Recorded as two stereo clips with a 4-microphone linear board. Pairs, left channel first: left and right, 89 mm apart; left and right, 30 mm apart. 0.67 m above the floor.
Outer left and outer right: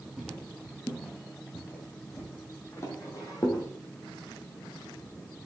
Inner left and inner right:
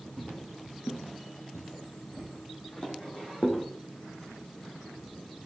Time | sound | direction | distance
0.2 | footsteps | 5° right (ahead or behind) | 1.5 m